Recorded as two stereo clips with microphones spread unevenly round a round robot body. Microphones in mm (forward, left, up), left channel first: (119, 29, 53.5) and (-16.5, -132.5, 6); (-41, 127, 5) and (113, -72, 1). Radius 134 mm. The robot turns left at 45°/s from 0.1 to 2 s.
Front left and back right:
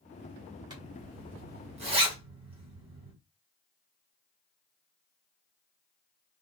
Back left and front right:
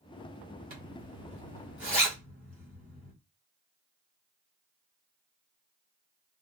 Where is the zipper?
90° right, 1.8 m; by 3.1 s 145° right, 1.8 m.